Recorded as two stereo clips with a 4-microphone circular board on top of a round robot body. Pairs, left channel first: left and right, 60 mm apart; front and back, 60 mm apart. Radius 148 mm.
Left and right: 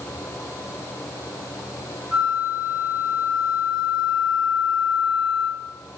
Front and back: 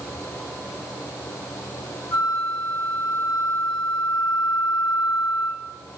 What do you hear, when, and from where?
2.1 s a flute: 10° right, 0.7 m